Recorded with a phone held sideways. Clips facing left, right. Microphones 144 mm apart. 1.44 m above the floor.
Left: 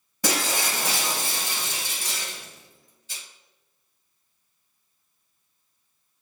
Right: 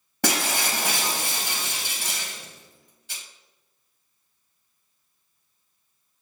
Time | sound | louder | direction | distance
0.2 | breaking glass | right 1 dB | 65° right (ahead or behind) | 1.1 m